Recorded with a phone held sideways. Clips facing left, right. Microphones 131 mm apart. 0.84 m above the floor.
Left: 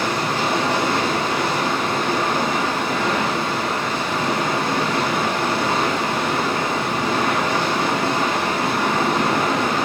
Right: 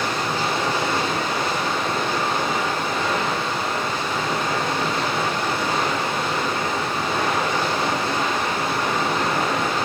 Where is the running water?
85° left, 3.5 m.